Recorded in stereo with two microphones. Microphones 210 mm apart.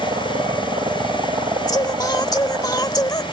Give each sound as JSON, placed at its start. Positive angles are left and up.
{"t": 0.0, "sound": "a helicopter", "side_deg": -25}
{"t": 1.7, "sound": "singing", "side_deg": 20}